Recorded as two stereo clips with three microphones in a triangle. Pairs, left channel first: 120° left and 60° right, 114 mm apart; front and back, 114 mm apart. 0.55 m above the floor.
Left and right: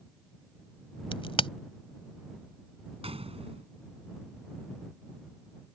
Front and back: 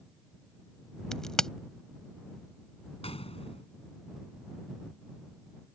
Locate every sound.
1.1 s a crack: 85° left
3.0 s a gunshot: 30° right